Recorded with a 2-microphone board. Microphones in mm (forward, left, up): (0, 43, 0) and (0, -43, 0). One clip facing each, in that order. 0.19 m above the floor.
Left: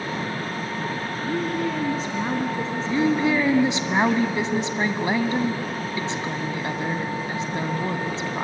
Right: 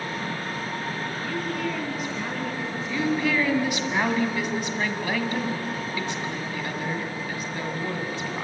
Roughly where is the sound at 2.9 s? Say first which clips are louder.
Left 4 dB; left.